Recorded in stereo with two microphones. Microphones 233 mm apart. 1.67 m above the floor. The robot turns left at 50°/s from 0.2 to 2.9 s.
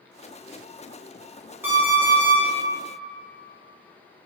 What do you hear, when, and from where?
1.6 s an alarm clock: 10° right (ahead or behind), 0.9 m; by 2.4 s 5° left (ahead or behind), 0.9 m